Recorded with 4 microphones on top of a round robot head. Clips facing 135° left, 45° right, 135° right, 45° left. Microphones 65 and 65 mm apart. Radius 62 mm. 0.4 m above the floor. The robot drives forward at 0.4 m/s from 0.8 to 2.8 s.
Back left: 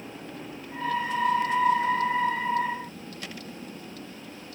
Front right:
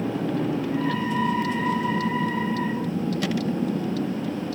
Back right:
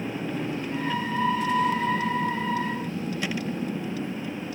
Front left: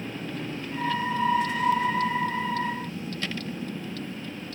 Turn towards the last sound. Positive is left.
turn(degrees=-55)